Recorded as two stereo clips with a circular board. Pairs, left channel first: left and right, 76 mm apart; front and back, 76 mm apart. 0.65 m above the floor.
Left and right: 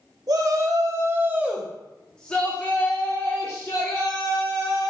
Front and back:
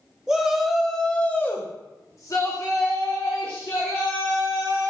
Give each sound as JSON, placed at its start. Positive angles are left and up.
{"t": 0.3, "sound": "a shout", "azimuth_deg": -100, "distance_m": 0.9}